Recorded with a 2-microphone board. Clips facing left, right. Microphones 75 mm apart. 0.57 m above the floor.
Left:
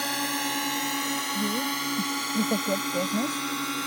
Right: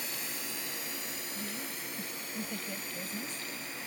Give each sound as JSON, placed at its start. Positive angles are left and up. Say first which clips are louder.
{"t": 0.0, "sound": "a drone", "louder": "left 13 dB", "side_deg": 70}
{"t": 1.4, "sound": "a woman speaking", "louder": "left 13 dB", "side_deg": 65}